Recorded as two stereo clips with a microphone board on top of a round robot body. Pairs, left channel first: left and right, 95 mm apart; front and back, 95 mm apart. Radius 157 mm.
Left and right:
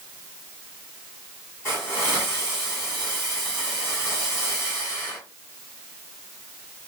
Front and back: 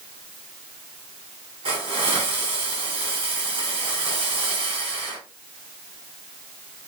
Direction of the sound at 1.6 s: 160° left.